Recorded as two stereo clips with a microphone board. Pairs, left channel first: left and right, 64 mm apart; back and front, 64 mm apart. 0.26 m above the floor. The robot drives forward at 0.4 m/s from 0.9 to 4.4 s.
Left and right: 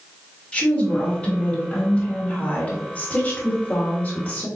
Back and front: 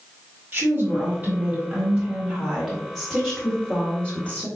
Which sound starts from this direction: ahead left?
A woman speaking, at 0.5 s.